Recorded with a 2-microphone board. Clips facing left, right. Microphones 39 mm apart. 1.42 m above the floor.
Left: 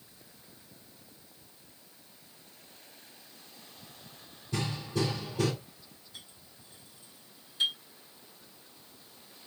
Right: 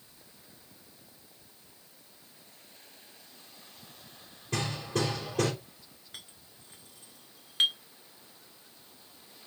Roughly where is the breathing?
No breathing in this recording.